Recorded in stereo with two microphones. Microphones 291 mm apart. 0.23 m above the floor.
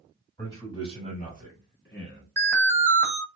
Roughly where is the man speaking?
Centre.